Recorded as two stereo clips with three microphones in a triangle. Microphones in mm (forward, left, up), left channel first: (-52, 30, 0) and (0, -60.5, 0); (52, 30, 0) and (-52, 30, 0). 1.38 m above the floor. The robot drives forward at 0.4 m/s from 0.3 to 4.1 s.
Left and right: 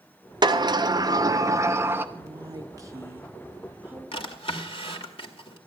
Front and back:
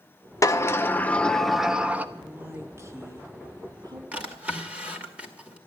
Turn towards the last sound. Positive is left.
turn(degrees=105)